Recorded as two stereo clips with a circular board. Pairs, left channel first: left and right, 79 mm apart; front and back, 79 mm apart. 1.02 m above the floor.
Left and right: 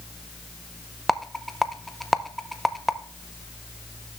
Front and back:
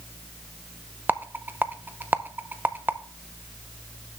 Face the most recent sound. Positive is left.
turn(degrees=175)